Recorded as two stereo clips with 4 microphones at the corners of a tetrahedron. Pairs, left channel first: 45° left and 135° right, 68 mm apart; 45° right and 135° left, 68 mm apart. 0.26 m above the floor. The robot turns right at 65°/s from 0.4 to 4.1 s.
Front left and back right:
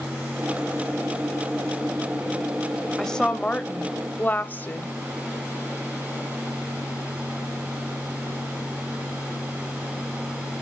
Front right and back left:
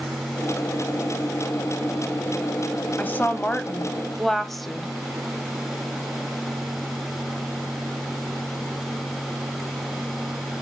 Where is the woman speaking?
30° right, 1.0 m; by 4.9 s 45° left, 1.0 m.